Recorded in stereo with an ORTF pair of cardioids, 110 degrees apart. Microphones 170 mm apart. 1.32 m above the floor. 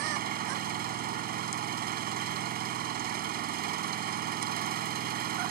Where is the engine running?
65° right.